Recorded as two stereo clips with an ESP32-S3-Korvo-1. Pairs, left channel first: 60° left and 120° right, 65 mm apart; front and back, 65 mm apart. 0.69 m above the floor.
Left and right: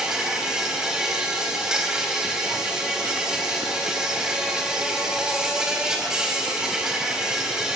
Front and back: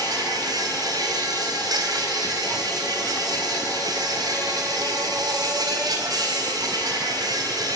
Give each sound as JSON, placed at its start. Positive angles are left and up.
{"t": 0.0, "sound": "an insect", "azimuth_deg": 160, "distance_m": 3.0}